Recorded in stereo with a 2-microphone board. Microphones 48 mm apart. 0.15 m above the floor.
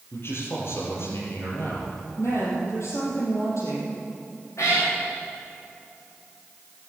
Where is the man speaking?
55° left (ahead or behind), 5 m.